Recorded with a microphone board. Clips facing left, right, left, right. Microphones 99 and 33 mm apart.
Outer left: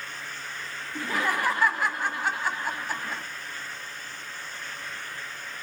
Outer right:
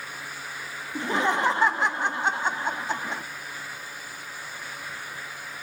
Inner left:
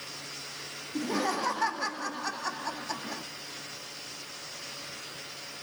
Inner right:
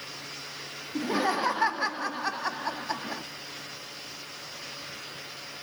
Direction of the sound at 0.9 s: 25° right (ahead or behind).